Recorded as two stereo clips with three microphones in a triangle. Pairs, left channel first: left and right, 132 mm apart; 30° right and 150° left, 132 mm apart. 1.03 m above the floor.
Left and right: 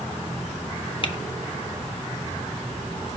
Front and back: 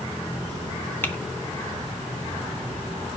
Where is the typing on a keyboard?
45° left, 0.9 m.